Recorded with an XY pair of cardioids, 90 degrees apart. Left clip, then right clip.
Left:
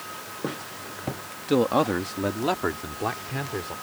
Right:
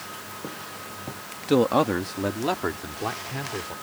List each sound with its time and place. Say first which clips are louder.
1.5 s a man speaking: right 1 dB; 15° right; by 3.8 s 20° left